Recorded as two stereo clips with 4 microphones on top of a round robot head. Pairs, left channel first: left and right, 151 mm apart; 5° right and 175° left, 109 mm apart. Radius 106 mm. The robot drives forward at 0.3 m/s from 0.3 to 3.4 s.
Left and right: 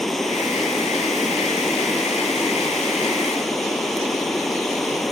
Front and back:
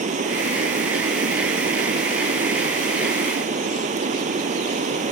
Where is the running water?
Straight behind.